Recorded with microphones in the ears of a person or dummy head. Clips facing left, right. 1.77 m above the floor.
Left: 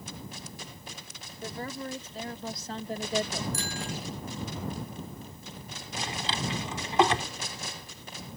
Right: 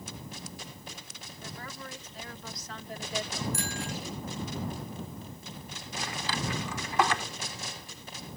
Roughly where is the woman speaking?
Left.